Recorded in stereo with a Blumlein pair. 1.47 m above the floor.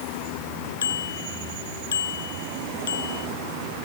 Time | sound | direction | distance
0.8 | a bicycle bell | 65° left | ?